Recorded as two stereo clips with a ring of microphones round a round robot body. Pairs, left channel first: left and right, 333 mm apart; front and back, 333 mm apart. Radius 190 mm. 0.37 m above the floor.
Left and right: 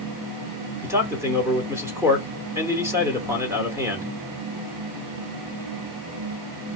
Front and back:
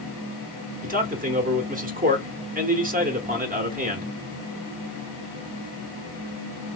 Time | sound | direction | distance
0.8 | a man speaking | 160° right | 0.9 m